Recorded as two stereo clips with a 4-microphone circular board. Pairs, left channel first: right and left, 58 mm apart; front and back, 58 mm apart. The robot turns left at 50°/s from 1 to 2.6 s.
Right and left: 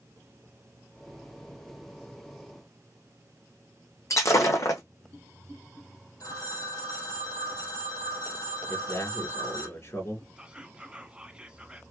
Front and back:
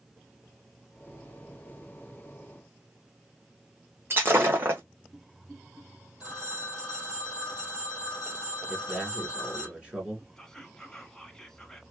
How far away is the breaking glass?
About 1.3 m.